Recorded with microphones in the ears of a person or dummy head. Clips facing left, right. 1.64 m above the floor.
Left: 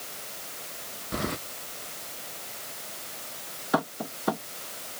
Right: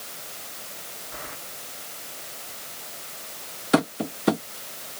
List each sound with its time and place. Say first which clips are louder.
1.1 s keys jangling: left 11 dB; 55° left (ahead or behind)
3.7 s tapping: right 6 dB; 30° right (ahead or behind)